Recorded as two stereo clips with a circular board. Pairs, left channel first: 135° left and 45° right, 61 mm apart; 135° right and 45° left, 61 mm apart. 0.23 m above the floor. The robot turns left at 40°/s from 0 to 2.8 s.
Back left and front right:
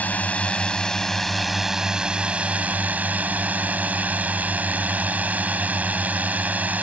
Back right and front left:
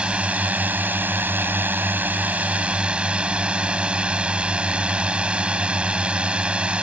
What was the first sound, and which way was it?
A drone, 100° left.